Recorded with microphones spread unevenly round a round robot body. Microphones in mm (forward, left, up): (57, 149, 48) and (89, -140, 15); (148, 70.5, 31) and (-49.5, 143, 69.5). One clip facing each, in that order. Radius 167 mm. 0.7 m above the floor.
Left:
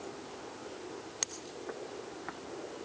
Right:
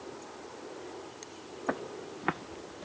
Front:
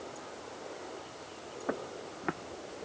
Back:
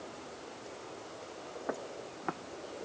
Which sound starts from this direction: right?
Footsteps, at 1.7 s.